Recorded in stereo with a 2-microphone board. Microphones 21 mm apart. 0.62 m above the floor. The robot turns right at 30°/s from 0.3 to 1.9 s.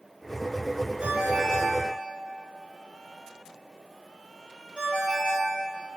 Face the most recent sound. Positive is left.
turn(degrees=-45)  # may be behind; listen again after turning